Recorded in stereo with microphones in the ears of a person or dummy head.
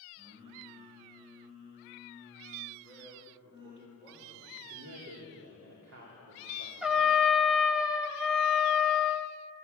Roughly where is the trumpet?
Centre.